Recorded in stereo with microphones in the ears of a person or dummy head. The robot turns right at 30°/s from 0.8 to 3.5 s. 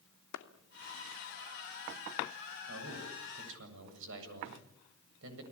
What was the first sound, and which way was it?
A clap, 70° left (ahead or behind).